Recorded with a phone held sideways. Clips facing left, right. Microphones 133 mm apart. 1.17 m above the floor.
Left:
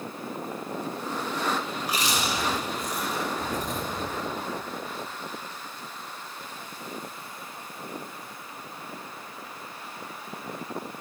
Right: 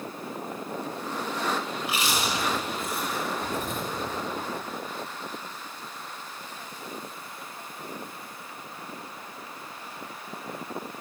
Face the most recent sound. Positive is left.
turn(degrees=40)  # may be behind; listen again after turning